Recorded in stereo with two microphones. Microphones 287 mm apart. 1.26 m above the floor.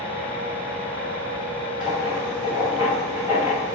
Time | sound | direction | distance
1.8 | writing | 15° right (ahead or behind) | 1.5 m